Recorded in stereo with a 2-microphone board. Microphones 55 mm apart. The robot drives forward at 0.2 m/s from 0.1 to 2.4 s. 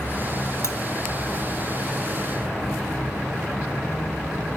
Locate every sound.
0.6 s cutlery clinking: 60° left (ahead or behind), 1.5 m